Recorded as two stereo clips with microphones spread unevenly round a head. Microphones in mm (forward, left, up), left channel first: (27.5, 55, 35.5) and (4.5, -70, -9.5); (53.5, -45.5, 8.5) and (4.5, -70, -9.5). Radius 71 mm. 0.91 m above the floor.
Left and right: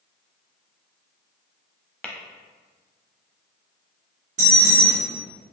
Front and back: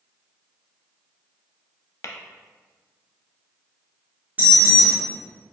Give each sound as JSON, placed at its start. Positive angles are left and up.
{"t": 2.0, "sound": "tapping", "azimuth_deg": 0, "distance_m": 0.6}
{"t": 4.4, "sound": "an alarm", "azimuth_deg": -95, "distance_m": 1.9}